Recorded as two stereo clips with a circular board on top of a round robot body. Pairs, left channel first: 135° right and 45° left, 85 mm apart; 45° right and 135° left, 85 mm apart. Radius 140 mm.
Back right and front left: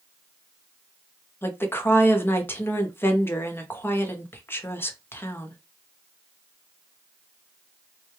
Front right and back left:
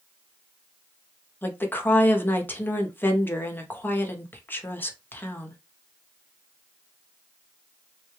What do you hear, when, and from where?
1.4 s a woman speaking: 90° right, 1.0 m